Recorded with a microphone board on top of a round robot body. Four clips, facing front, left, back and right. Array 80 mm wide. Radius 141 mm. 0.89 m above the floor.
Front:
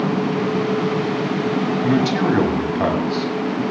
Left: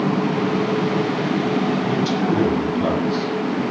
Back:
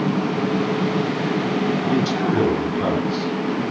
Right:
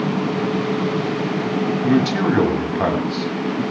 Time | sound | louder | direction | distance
1.8 | a man speaking | right 3 dB, front 2 dB | 40° right | 8 m